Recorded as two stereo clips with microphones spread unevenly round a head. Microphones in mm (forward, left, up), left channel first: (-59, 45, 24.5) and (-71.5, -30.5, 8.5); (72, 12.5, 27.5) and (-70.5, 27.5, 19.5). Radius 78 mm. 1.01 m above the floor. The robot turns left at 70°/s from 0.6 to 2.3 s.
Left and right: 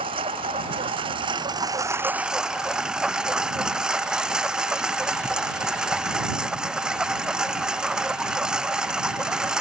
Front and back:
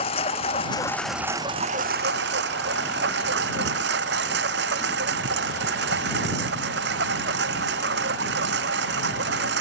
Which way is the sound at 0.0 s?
60° right.